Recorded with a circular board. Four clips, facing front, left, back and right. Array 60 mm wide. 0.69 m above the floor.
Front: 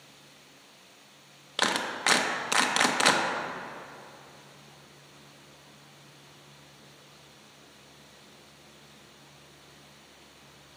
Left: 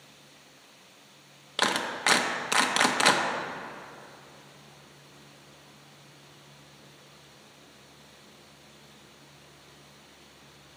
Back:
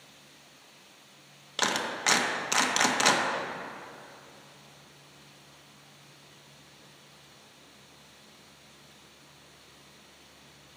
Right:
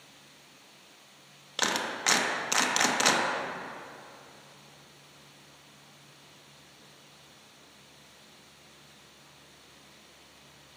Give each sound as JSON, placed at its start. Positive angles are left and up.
{"t": 1.6, "sound": "a clap", "azimuth_deg": 60, "distance_m": 0.7}